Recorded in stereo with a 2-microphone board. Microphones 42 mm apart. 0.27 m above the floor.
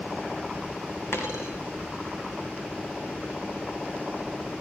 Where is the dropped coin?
90° left, 5 m.